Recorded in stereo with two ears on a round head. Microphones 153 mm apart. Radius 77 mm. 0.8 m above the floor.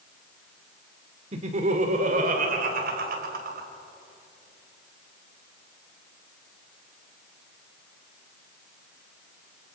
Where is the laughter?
40° right (ahead or behind), 2.5 m; by 3.7 s 60° right (ahead or behind), 4 m.